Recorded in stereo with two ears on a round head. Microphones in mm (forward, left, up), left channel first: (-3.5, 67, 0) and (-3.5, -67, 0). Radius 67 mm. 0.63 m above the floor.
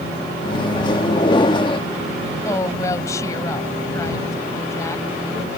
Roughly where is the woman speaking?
Left.